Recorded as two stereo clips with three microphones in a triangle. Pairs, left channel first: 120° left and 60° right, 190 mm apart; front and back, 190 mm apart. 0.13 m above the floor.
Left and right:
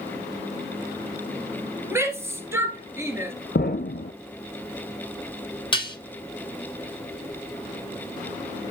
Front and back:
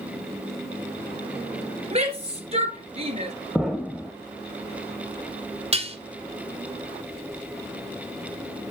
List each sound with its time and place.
1.9 s a shout: 130° right, 2.5 m
3.5 s an explosion: 90° left, 0.8 m
5.7 s dishes clattering: 160° left, 1.1 m